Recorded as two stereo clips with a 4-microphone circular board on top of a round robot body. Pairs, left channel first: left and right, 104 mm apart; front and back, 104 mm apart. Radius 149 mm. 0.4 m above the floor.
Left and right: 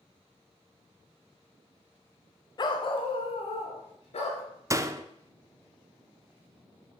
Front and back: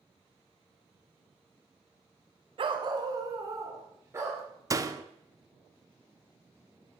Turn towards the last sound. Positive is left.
turn(degrees=-135)